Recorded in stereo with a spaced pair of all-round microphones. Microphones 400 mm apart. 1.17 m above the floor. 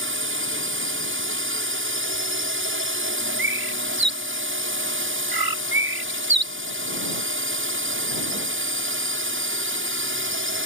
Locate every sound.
0.0 s a drone: 30° right (ahead or behind)
3.4 s a bird: 60° right (ahead or behind)